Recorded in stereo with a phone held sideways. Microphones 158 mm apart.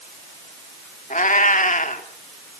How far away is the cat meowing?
About 1.6 m.